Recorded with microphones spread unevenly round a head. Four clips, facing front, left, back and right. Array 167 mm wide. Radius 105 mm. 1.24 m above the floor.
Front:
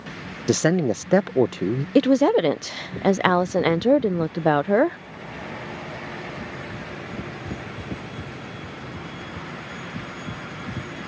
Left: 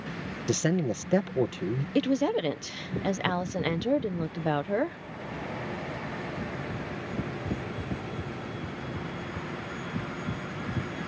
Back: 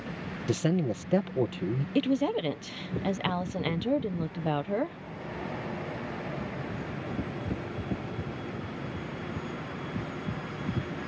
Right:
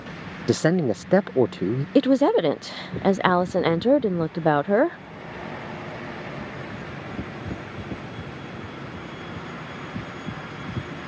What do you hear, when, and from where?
0.5 s a man speaking: 35° right
1.9 s a woman speaking: 35° right